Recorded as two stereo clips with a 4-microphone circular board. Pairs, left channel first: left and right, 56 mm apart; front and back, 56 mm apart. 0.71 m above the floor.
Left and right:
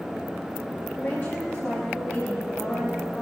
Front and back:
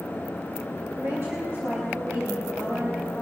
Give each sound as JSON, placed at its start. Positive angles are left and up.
{"t": 1.0, "sound": "a woman speaking", "azimuth_deg": 140, "distance_m": 4.0}